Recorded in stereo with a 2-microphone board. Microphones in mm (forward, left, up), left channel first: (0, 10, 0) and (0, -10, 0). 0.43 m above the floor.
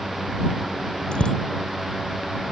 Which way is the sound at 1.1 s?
50° left (ahead or behind).